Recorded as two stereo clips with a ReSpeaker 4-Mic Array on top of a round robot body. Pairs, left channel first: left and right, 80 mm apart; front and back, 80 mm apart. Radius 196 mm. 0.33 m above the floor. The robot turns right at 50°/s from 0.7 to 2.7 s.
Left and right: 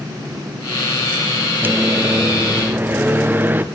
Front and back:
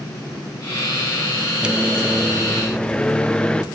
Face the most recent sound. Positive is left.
turn(degrees=-65)